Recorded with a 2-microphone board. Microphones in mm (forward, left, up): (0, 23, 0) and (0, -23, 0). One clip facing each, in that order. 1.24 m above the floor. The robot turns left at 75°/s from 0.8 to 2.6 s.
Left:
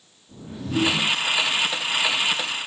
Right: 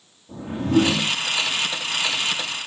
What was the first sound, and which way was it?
A whoosh, 50° right (ahead or behind).